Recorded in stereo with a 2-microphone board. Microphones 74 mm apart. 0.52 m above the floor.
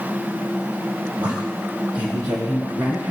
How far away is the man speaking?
About 2 m.